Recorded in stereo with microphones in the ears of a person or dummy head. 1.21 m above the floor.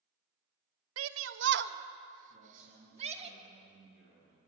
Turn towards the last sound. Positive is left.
turn(degrees=-50)  # may be behind; listen again after turning